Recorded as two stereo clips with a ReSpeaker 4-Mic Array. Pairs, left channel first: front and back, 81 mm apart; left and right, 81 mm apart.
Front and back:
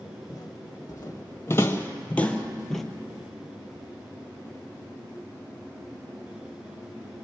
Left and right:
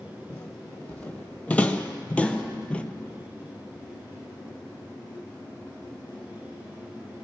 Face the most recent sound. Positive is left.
turn(degrees=180)